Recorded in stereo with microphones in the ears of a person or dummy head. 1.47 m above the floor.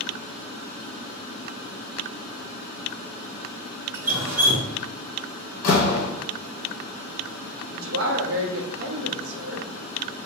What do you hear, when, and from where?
3.9 s dripping: 20° right (ahead or behind), 1.0 m
5.6 s a door slam: 40° left (ahead or behind), 0.9 m
7.7 s a woman speaking: 70° right (ahead or behind), 0.9 m